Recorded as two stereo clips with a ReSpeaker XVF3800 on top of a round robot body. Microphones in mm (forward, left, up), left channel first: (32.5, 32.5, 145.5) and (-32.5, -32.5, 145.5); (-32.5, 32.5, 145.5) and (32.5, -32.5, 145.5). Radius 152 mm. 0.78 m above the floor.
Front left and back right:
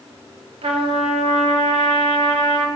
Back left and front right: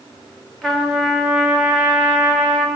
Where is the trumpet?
140° right, 1.9 m.